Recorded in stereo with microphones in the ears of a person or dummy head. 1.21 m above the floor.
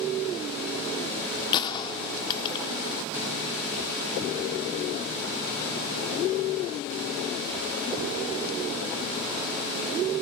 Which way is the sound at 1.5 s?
35° left (ahead or behind).